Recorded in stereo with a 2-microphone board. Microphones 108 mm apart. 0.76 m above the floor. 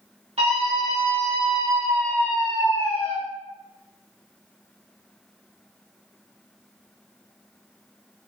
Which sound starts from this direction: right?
A scream, at 0.4 s.